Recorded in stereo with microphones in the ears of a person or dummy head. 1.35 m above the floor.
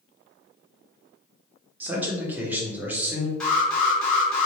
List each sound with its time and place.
1.8 s a man speaking: 10° right (ahead or behind), 1.1 m
3.4 s an alarm: 5° left (ahead or behind), 1.3 m